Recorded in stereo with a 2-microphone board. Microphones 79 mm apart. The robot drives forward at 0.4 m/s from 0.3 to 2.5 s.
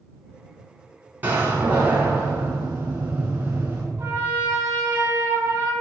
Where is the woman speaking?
I don't hear a woman speaking.